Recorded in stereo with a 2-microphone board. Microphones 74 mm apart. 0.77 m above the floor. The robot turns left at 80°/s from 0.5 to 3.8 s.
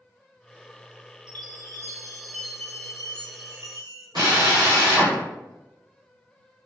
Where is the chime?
90° right, 0.6 m; by 4.0 s 70° left, 0.6 m.